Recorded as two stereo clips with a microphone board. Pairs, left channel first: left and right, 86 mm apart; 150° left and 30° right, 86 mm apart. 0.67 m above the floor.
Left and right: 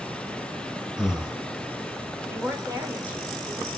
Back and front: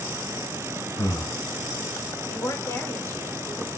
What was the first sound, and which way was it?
Breathing, 165° right.